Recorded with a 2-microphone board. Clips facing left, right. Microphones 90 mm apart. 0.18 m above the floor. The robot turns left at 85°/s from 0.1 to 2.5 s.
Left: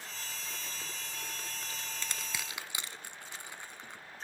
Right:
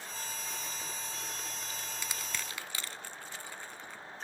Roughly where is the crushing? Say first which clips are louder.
Even; centre.